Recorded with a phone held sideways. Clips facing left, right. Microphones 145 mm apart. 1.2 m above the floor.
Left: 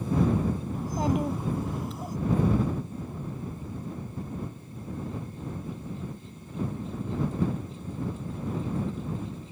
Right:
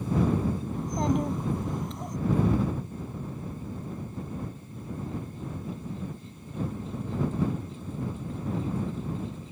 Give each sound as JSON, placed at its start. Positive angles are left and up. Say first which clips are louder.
{"t": 0.7, "sound": "a child speaking", "louder": "right 1 dB", "side_deg": 5}